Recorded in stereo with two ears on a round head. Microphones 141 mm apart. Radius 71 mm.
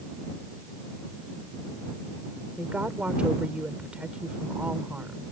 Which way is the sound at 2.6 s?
10° right (ahead or behind).